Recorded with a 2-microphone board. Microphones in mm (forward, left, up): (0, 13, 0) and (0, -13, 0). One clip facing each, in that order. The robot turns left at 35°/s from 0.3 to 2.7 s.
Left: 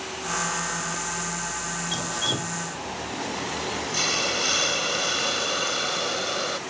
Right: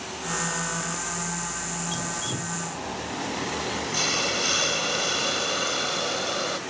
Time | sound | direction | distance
1.9 | dripping | 20° left (ahead or behind) | ?
3.9 | a hiss | 5° left (ahead or behind) | ?